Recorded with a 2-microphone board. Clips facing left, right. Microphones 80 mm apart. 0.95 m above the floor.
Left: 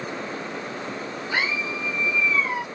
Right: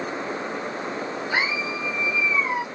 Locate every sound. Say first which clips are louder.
1.3 s a scream: even; 15° right (ahead or behind); by 2.6 s 10° right (ahead or behind)